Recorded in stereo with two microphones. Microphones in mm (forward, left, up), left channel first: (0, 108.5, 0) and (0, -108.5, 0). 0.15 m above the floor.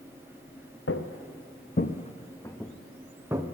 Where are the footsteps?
80° left, 1.0 m; by 3.4 s 15° right (ahead or behind), 1.3 m.